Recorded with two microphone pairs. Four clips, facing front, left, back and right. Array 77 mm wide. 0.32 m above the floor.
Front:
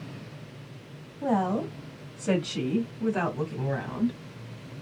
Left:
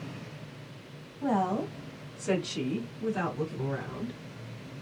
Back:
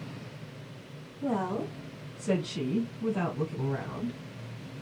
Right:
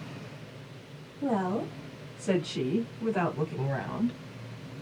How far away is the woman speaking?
About 1.7 m.